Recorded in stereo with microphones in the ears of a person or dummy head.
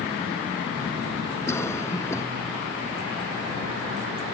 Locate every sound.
1.5 s a cough: 10° left (ahead or behind)